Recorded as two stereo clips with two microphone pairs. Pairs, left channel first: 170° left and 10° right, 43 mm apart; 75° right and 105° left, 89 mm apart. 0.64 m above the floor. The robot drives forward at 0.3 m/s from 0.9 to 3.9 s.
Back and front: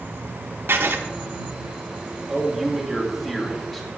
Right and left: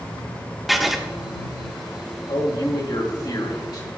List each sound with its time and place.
0.7 s writing: 15° left, 0.8 m
2.3 s a man speaking: 95° right, 2 m; by 3.9 s 105° right, 2.5 m